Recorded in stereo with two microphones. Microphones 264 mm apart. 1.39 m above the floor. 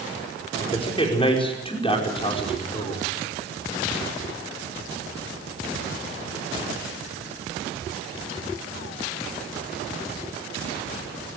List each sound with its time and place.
0.6 s a man speaking: 20° left (ahead or behind), 5 m